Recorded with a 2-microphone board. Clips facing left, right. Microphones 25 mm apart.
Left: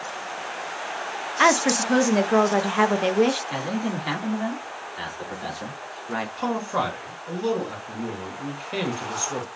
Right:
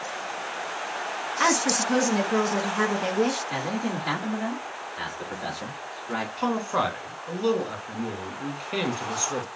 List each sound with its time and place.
1.4 s a woman speaking: 30° left (ahead or behind), 0.5 m
3.5 s a man speaking: 5° left (ahead or behind), 1.4 m
6.4 s a man speaking: 10° right (ahead or behind), 1.3 m